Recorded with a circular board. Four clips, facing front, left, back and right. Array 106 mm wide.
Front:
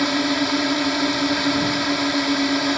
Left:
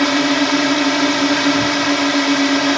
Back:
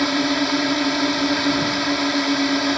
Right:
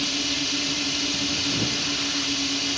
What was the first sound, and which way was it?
A drone, 95° left.